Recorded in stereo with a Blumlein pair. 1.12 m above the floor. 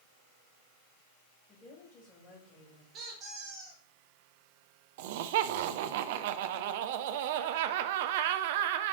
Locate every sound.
1.5 s a woman speaking: 15° left, 5 m
2.9 s a squeak: 25° right, 4 m
5.0 s laughter: 50° right, 0.7 m